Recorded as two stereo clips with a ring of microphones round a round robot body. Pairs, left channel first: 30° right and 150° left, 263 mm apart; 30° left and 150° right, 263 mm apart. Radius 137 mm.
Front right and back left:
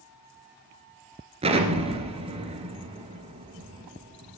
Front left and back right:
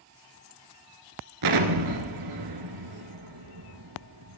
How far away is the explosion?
About 1.5 m.